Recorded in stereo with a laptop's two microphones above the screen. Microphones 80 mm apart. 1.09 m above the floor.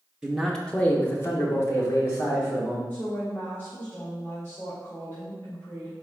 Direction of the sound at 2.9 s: 25° left (ahead or behind).